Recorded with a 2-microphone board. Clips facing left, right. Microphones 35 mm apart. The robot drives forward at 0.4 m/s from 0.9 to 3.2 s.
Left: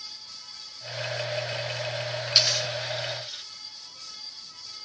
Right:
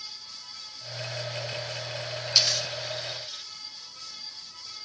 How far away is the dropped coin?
About 1.0 m.